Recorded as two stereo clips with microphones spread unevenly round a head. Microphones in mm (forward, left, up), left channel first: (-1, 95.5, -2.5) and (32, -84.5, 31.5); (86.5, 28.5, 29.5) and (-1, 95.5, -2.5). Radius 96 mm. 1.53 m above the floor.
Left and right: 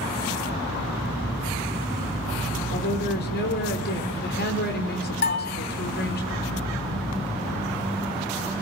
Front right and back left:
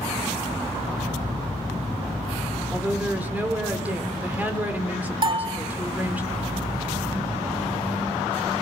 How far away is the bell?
About 1.4 m.